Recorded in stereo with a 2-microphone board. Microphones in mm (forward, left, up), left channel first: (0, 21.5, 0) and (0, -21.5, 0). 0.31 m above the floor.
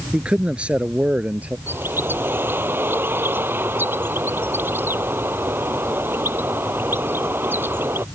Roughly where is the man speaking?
Right.